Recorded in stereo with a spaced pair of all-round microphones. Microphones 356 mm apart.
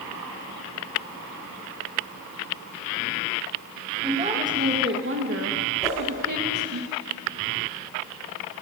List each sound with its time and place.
4.0 s a woman speaking: 15° right (ahead or behind), 2 m; by 6.8 s 70° right (ahead or behind), 2 m
5.8 s a whoosh: 10° left (ahead or behind), 4.5 m